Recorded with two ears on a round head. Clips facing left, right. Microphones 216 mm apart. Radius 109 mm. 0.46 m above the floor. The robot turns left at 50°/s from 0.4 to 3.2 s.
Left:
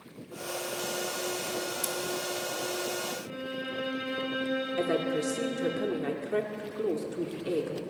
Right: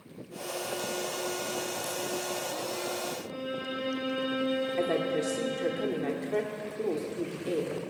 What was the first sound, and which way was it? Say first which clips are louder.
Scissors: left 1 dB; 75° left (ahead or behind).